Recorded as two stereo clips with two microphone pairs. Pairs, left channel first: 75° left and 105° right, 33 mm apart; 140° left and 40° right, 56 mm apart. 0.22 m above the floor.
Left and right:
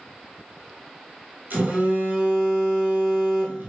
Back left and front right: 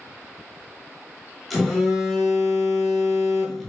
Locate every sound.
1.5 s a phone buzzing: 130° right, 0.9 m